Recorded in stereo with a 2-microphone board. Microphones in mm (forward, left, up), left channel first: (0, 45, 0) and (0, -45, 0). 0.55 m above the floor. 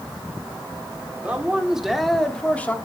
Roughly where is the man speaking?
Centre.